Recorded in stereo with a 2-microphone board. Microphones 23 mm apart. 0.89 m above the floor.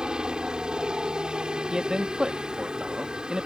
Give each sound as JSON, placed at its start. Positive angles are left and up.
{"t": 0.0, "sound": "a helicopter", "side_deg": -40}
{"t": 1.7, "sound": "a man speaking", "side_deg": -30}